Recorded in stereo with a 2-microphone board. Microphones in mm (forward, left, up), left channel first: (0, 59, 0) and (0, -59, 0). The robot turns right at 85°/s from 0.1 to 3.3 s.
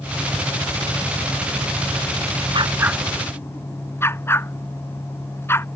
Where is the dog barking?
45° right (ahead or behind); by 5.7 s 20° left (ahead or behind).